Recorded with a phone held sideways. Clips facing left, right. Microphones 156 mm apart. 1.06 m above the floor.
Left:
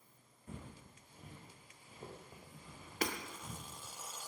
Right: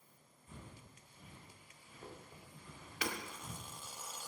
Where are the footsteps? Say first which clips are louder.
Left 4 dB; 60° left (ahead or behind), 4.5 m; by 3.8 s 5° left (ahead or behind), 6 m.